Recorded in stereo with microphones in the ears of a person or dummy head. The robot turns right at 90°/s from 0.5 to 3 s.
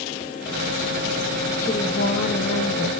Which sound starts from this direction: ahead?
A woman speaking, at 1.6 s.